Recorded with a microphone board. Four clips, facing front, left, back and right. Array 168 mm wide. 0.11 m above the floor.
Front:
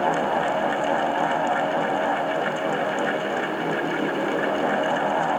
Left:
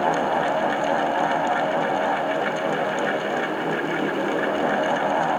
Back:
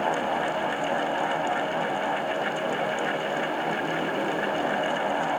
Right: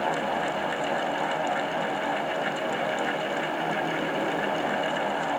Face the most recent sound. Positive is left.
No sound to turn to.